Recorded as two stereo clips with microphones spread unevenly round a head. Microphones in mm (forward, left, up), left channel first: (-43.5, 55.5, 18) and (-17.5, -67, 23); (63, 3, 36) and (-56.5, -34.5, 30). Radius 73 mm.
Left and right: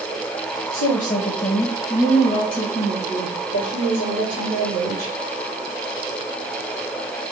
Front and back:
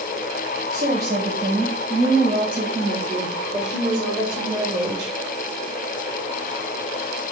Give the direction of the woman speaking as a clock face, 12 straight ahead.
8 o'clock.